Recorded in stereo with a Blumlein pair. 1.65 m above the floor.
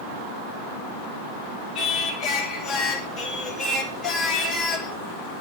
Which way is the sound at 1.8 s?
20° left.